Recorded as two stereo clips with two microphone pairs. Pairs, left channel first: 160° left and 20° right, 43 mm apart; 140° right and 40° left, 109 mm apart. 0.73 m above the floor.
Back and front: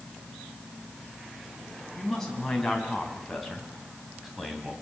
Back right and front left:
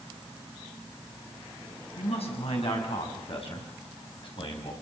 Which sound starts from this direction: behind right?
A man speaking, at 2.0 s.